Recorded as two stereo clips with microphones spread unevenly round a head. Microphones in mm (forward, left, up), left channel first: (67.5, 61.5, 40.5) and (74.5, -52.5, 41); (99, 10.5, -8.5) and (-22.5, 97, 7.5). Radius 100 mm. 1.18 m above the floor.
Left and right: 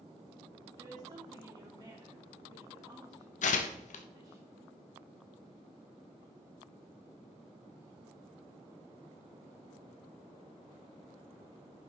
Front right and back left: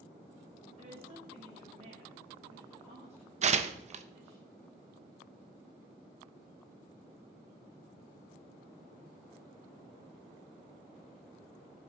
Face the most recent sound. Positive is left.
turn(degrees=105)